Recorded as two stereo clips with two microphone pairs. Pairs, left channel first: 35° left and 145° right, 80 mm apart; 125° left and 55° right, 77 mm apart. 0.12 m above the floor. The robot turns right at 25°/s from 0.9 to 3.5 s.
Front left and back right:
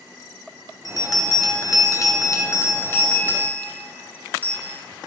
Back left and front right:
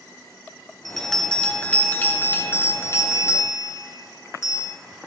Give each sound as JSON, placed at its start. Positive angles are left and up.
{"t": 0.8, "sound": "a bell", "azimuth_deg": 40, "distance_m": 2.5}